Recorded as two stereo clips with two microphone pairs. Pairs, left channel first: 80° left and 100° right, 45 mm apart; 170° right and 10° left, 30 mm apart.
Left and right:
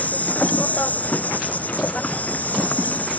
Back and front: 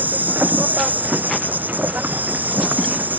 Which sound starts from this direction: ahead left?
An insect, at 0.0 s.